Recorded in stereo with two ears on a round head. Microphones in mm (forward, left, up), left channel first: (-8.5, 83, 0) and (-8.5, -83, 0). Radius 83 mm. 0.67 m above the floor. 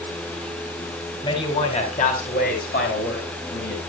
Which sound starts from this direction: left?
A man speaking, at 1.2 s.